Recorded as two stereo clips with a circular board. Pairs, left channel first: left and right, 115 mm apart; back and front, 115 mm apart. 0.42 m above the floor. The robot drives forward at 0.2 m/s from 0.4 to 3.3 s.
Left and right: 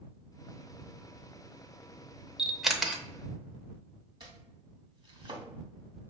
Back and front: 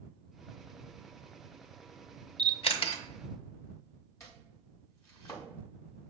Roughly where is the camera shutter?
Behind.